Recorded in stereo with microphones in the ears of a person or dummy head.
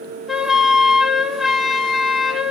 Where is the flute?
5° right (ahead or behind), 0.7 m.